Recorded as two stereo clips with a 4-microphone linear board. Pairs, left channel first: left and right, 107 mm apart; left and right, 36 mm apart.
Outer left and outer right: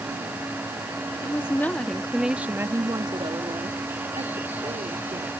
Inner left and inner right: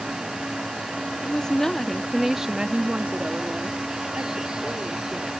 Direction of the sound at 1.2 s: 30° left (ahead or behind).